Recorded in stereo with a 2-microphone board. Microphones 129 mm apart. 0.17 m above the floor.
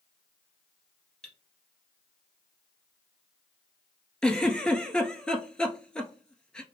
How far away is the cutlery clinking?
About 1.3 m.